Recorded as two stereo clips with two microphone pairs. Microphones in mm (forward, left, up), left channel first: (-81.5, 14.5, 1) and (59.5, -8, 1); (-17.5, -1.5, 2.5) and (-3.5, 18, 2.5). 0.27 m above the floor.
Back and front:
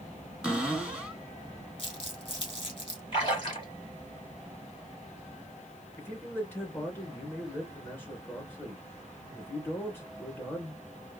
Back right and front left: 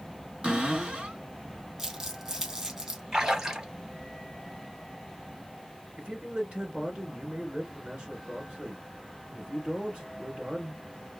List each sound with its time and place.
0.4 s a cupboard door: 75° left, 2.5 m
1.8 s crumpling: 120° left, 2.5 m
3.1 s a splash: 115° left, 4 m
6.0 s a man speaking: 100° left, 3 m